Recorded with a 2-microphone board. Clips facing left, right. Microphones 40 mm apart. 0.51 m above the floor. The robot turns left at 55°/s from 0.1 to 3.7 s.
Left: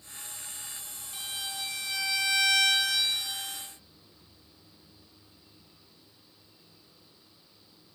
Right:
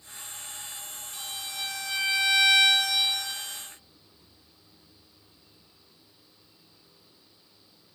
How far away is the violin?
About 4.5 m.